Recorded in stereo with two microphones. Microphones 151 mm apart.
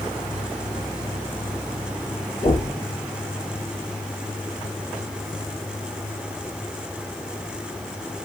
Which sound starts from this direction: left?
Knocking, at 2.4 s.